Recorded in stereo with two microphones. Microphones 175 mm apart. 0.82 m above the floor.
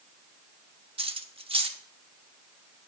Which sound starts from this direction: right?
Cutlery clinking, at 1.0 s.